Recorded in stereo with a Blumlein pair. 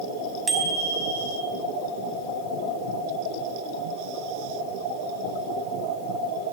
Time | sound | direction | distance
0.5 | a bicycle bell | 10° right | 5 m